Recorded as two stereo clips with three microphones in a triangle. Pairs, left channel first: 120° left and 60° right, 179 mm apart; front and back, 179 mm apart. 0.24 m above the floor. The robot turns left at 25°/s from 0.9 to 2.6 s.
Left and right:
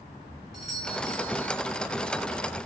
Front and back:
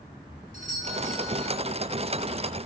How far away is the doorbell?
About 4 m.